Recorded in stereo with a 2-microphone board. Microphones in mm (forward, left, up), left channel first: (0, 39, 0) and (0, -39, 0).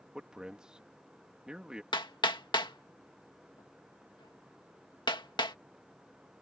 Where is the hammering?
75° left (ahead or behind).